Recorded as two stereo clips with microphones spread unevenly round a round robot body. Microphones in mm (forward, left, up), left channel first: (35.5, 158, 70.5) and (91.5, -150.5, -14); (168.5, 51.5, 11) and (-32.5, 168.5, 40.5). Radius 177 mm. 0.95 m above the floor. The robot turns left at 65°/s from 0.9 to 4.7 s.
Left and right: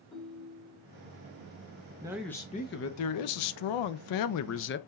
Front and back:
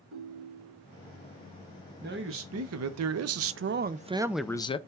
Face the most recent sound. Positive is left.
turn(degrees=35)